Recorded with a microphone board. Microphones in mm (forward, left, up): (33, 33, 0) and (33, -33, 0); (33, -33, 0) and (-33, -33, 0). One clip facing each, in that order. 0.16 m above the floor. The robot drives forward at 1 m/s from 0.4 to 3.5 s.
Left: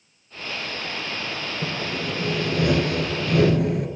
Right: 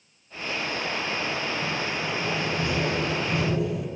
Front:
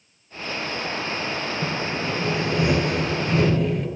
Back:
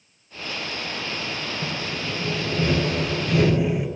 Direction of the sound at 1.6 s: 55° left.